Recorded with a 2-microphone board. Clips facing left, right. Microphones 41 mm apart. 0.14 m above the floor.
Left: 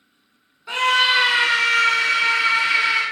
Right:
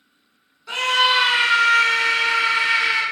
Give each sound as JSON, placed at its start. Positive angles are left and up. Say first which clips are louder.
{"t": 0.7, "sound": "a scream", "louder": "left 1 dB", "side_deg": 15, "distance_m": 1.1}